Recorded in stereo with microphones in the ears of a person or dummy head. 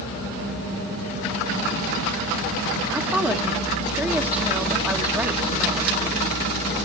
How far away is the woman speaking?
About 1.3 m.